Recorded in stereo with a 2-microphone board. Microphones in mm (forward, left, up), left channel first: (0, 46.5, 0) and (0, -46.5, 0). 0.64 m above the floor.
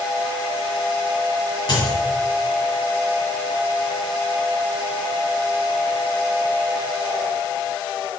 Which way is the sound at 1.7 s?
50° left (ahead or behind).